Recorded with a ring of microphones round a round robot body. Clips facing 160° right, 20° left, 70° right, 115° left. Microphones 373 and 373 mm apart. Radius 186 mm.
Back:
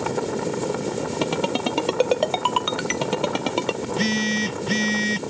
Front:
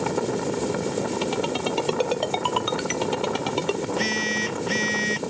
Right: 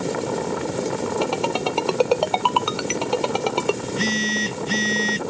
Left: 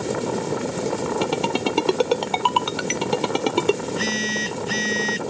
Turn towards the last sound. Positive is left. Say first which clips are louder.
# back 3 dB, right 1 dB
turn(degrees=-150)